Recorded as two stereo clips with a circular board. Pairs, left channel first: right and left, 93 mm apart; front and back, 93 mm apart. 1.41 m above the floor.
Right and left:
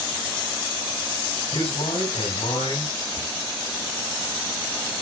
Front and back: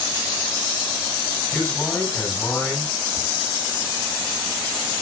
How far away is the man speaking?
About 8.5 m.